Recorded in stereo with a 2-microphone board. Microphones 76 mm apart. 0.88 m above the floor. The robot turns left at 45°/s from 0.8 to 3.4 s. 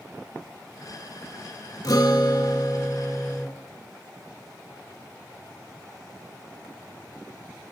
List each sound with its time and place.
1.8 s a guitar: 110° left, 3 m; by 3.5 s 40° left, 3 m